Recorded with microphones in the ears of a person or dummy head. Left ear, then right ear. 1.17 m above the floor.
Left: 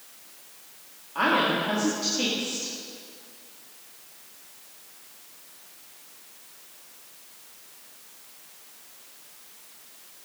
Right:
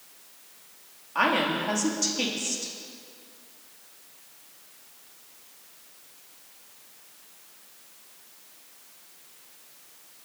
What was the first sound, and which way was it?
A woman speaking, 45° right (ahead or behind).